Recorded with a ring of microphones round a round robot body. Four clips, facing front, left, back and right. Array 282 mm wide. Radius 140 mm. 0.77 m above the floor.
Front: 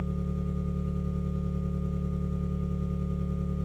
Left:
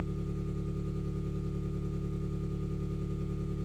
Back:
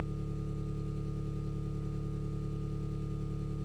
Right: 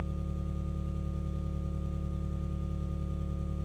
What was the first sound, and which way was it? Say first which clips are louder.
An engine running: left 2 dB, front 6 dB; 15° left.